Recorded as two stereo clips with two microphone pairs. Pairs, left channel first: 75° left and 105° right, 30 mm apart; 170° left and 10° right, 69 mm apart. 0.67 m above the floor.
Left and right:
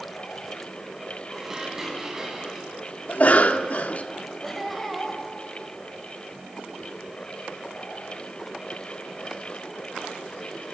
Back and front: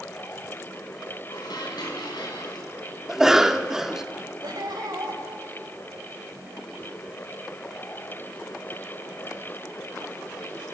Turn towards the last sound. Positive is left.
turn(degrees=-15)